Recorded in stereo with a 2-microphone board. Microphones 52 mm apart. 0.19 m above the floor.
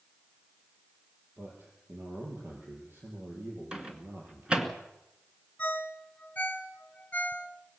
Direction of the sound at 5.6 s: 30° left (ahead or behind).